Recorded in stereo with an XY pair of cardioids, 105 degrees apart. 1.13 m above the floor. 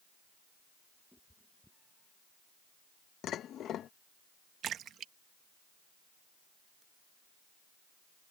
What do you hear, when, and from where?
1.1 s a cat meowing: 5° left
3.2 s dishes clattering: 65° left
4.6 s a splash: 65° right